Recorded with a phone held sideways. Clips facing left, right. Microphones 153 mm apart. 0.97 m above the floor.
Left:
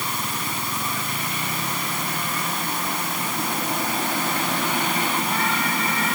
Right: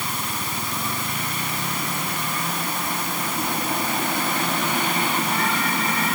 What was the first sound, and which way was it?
Only background noise.